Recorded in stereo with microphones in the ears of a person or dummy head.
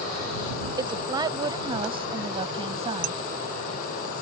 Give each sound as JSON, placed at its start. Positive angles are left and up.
{"t": 0.8, "sound": "a woman speaking", "side_deg": -25}
{"t": 3.0, "sound": "dishes clattering", "side_deg": -60}